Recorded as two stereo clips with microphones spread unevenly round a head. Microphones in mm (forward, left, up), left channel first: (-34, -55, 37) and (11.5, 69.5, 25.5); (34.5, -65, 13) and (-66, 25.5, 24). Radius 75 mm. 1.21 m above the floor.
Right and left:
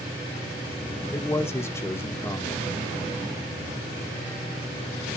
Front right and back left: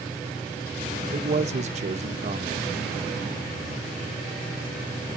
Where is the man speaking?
175° left, 1.3 m.